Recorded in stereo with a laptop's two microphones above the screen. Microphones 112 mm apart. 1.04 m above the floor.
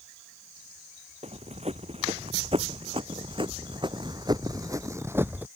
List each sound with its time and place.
1.2 s running footsteps: 65° right (ahead or behind); by 5.5 s 15° right (ahead or behind)